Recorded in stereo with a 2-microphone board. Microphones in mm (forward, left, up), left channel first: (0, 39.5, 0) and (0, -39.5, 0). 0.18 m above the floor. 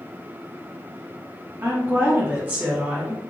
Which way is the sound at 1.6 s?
35° right (ahead or behind).